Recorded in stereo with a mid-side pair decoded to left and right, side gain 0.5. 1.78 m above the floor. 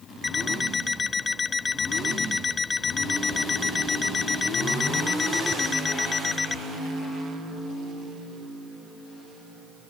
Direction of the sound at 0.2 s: 35° left.